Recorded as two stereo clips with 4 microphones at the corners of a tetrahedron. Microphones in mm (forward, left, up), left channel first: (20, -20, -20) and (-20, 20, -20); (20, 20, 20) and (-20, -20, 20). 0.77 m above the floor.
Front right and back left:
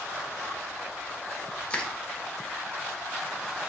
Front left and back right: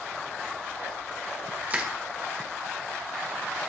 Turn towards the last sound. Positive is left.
turn(degrees=-95)